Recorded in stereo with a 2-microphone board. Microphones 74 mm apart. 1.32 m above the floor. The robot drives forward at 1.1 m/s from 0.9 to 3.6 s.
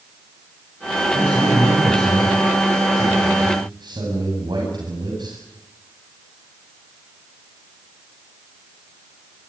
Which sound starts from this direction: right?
A man speaking, at 1.1 s.